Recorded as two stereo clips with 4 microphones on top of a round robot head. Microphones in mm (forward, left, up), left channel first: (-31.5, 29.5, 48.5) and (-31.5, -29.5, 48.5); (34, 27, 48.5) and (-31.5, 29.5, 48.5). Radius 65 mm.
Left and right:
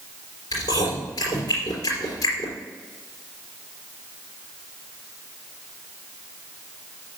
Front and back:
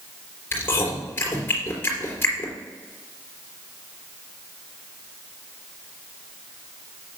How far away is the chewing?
About 3.5 m.